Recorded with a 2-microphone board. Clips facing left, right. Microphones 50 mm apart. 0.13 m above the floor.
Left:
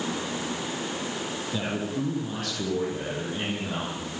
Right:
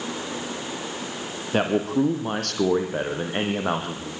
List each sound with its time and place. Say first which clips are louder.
1.5 s a man speaking: right 10 dB; 55° right (ahead or behind), 4 m; by 4.1 s 65° right (ahead or behind), 5.5 m